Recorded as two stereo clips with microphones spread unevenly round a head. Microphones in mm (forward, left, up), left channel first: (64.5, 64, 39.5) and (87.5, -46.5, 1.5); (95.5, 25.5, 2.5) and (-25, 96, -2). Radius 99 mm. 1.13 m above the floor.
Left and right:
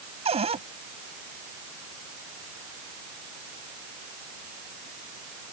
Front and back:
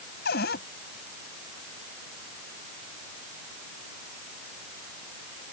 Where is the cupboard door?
45° right.